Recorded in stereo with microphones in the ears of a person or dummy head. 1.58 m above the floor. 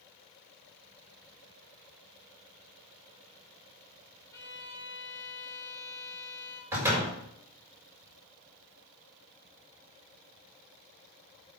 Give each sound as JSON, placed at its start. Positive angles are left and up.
{"t": 4.3, "sound": "a violin", "side_deg": 15, "distance_m": 2.5}
{"t": 6.7, "sound": "a door slam", "side_deg": -15, "distance_m": 5.5}